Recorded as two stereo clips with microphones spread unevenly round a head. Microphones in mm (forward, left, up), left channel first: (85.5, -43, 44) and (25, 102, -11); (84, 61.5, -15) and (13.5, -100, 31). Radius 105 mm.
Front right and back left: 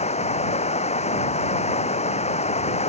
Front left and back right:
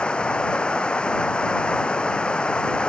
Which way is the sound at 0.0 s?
20° right.